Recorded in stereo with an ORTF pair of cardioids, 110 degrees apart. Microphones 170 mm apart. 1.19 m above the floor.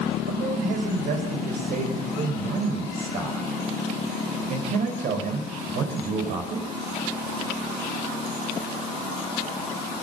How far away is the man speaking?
About 4.5 m.